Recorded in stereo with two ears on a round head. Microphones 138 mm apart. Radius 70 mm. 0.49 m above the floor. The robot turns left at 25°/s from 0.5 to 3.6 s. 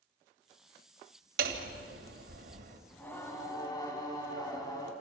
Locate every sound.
1.4 s hammering: 80° right, 2.5 m; by 2.8 s 115° right, 2.5 m
2.9 s singing: 10° left (ahead or behind), 4 m; by 4.9 s 25° left (ahead or behind), 4 m